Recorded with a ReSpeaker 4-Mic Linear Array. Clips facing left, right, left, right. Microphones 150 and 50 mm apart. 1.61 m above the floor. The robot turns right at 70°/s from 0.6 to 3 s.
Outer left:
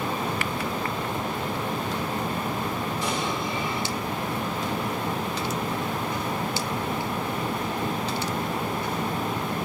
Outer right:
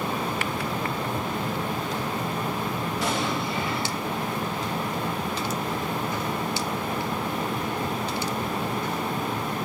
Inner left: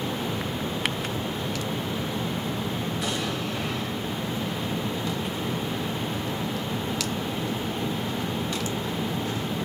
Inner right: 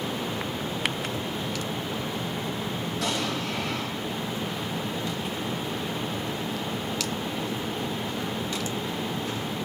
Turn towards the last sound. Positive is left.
turn(degrees=-85)